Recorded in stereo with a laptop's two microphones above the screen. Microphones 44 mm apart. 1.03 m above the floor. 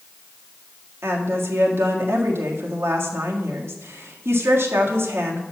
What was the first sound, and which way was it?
A woman speaking, 70° right (ahead or behind).